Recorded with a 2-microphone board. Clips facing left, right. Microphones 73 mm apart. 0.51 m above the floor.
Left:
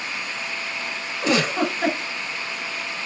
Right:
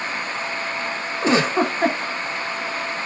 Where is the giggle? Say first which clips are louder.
Right 3 dB; 35° right (ahead or behind), 1.3 m.